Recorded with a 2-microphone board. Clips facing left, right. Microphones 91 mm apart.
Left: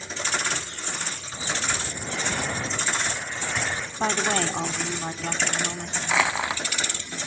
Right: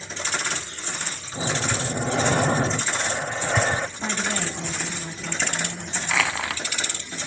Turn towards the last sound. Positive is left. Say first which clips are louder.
# left 2 dB
turn(degrees=15)  # may be behind; listen again after turning